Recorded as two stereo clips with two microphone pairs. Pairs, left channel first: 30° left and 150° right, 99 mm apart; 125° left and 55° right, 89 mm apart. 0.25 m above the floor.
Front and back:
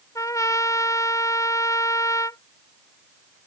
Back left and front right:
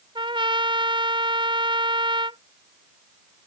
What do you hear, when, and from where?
0.1 s a trumpet: 25° right